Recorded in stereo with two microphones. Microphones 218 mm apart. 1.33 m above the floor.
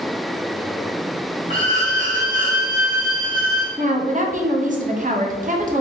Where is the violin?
35° right (ahead or behind), 1.0 m.